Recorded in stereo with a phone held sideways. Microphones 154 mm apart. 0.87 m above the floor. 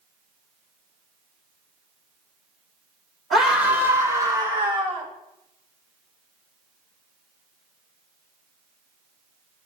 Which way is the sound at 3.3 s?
Centre (ahead or behind).